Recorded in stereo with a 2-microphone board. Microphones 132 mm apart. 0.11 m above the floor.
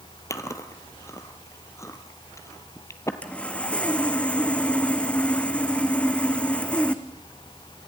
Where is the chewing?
20° left (ahead or behind), 1.4 m.